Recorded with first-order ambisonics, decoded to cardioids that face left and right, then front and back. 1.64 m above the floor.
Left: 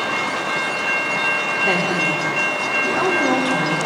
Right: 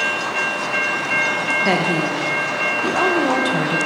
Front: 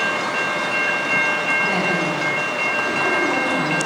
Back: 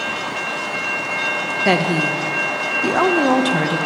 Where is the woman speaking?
165° right, 1.5 m.